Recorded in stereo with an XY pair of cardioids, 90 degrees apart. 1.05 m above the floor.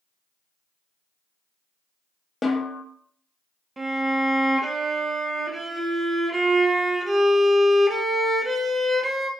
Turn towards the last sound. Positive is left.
turn(degrees=-30)